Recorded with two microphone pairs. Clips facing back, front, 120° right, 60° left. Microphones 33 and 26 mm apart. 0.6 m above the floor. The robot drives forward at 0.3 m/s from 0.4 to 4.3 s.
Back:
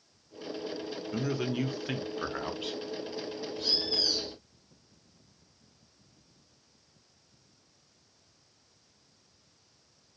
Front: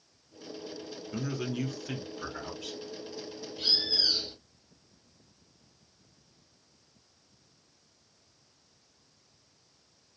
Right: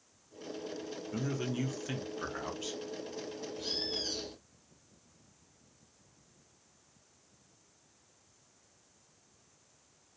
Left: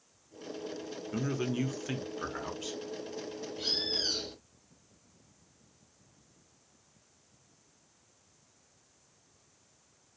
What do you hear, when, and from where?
1.1 s a man speaking: 110° left, 0.6 m; by 2.8 s 155° left, 0.9 m
3.6 s a bird: 30° left, 0.7 m; by 4.4 s 45° left, 0.6 m